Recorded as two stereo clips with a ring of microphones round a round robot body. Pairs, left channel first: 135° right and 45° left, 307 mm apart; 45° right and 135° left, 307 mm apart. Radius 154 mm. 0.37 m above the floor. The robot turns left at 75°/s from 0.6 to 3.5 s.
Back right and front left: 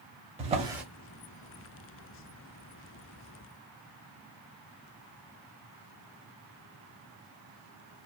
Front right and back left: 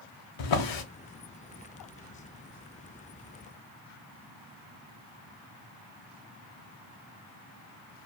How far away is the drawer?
About 0.7 m.